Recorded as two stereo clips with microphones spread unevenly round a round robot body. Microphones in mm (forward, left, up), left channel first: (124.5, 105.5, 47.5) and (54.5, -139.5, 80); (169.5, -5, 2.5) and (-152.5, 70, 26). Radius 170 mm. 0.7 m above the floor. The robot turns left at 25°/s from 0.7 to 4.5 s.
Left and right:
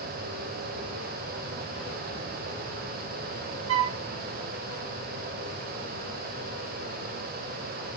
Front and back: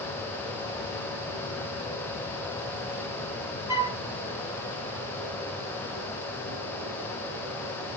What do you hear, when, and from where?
3.7 s a flute: 115° right, 0.6 m; by 4.0 s 125° right, 0.6 m